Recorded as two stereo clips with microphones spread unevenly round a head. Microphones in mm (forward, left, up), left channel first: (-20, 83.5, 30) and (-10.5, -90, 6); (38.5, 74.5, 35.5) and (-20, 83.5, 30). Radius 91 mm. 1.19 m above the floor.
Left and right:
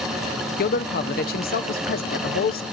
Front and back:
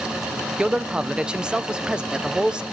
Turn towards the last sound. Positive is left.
turn(degrees=110)